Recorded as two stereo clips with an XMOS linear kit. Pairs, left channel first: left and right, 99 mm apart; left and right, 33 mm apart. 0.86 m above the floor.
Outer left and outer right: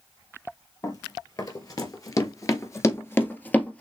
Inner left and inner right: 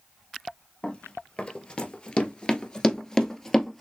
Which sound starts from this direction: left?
Running footsteps, at 0.8 s.